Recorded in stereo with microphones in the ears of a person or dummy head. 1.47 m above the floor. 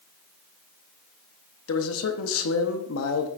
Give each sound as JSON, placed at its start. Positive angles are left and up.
{"t": 1.7, "sound": "a man speaking", "side_deg": 85, "distance_m": 0.9}